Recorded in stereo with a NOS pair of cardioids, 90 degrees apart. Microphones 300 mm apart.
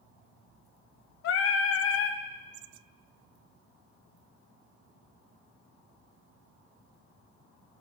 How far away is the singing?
About 0.6 m.